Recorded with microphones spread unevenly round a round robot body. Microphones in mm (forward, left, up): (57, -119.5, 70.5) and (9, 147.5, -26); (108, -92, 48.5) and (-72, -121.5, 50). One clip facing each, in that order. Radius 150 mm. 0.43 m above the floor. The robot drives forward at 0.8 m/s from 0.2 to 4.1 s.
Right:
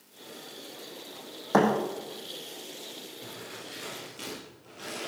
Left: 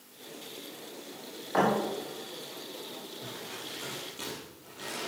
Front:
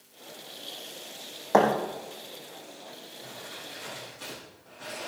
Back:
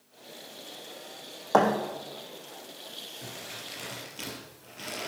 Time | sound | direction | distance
1.5 | a thud | 70° right | 3 m
3.2 | crumpling | 170° right | 3.5 m